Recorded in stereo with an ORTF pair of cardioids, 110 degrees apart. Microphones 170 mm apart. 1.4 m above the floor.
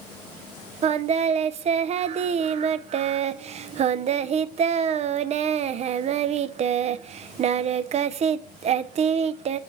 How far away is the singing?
About 0.5 m.